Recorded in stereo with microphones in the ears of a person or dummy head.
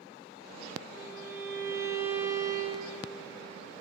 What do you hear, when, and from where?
0.9 s a violin: 15° right (ahead or behind), 0.8 m